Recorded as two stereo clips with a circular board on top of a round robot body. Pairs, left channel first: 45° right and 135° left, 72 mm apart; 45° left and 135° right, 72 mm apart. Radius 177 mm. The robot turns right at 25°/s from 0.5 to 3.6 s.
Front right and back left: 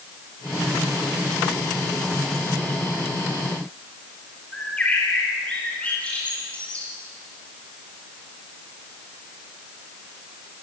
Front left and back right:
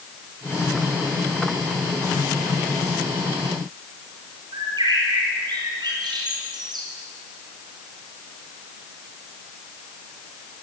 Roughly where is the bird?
Behind right.